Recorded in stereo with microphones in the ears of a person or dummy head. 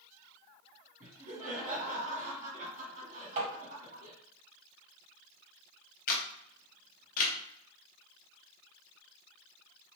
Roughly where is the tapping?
Right.